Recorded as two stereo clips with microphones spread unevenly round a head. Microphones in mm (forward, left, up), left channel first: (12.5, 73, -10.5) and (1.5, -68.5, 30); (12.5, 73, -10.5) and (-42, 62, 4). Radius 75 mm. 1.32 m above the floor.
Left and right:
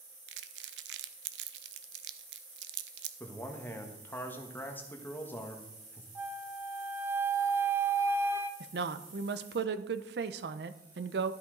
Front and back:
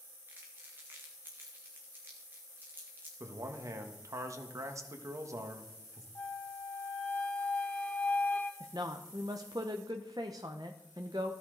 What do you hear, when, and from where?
0.3 s crumpling: 90° right, 0.7 m
3.2 s a man speaking: 165° left, 1.4 m
6.2 s a flute: 65° right, 0.6 m
8.6 s a woman speaking: 115° right, 0.7 m